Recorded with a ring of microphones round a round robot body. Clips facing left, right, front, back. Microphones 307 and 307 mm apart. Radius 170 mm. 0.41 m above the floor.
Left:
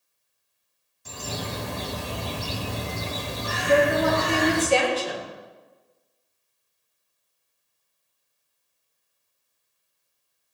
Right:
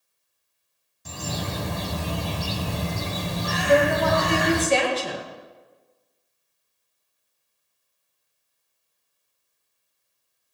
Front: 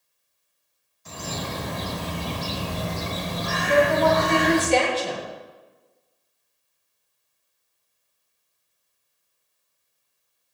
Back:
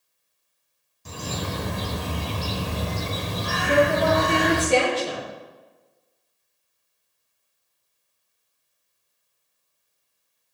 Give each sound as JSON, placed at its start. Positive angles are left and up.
{"t": 1.1, "sound": "a bird", "azimuth_deg": -120, "distance_m": 1.7}
{"t": 3.7, "sound": "a woman speaking", "azimuth_deg": -105, "distance_m": 6.5}